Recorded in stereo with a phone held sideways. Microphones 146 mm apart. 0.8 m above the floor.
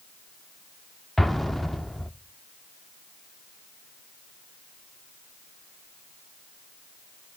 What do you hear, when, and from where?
1.2 s an explosion: centre (ahead or behind), 0.6 m